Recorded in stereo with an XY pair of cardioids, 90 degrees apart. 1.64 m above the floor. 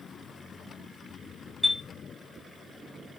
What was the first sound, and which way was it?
A chime, 10° right.